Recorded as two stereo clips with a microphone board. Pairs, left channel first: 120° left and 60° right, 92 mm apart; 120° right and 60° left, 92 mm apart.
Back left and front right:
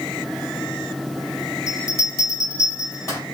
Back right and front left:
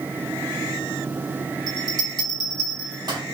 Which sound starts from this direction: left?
A bell, at 1.7 s.